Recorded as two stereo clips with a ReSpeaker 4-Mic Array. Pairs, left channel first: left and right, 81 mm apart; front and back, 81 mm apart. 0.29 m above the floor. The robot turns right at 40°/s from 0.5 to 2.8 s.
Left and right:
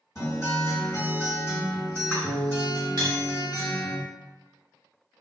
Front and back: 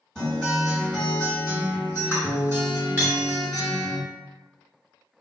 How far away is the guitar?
About 2.0 m.